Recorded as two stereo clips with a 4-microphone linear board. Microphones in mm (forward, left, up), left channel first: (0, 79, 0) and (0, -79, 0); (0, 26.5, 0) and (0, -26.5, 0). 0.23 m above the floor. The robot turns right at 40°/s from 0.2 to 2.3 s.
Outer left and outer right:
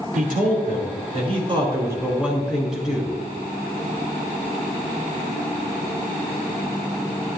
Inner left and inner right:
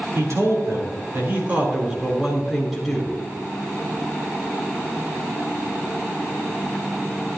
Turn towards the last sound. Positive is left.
turn(degrees=-5)